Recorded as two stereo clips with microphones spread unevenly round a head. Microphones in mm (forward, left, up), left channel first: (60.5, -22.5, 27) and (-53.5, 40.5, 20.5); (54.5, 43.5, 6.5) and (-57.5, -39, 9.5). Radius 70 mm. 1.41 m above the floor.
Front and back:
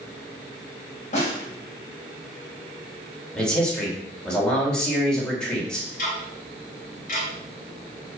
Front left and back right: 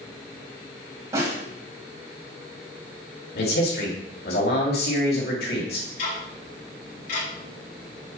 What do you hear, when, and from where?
1.1 s a snare drum: 75° right, 3 m
3.4 s a man speaking: 55° left, 3 m
6.0 s ticking: straight ahead, 3.5 m